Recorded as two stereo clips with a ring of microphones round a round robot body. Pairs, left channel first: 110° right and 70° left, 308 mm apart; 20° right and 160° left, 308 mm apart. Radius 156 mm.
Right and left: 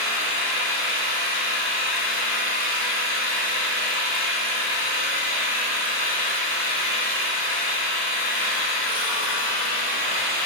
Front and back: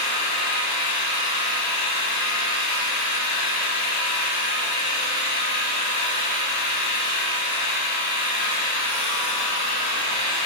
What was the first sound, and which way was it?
An engine running, 55° right.